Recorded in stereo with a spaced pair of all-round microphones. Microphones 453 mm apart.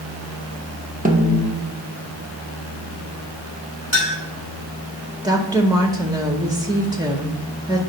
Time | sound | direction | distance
1.1 | a snare drum | 20° right (ahead or behind) | 0.9 m
3.9 | a clink | 80° left | 3 m
5.2 | a woman speaking | 10° right (ahead or behind) | 0.7 m